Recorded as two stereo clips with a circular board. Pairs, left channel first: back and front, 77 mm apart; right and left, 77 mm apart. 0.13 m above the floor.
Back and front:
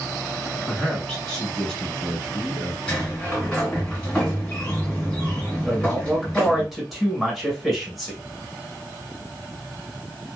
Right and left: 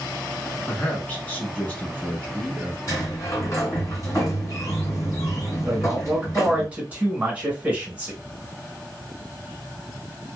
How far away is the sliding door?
About 2 m.